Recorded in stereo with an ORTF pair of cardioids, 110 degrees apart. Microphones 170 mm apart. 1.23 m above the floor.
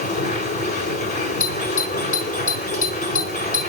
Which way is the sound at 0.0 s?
70° left.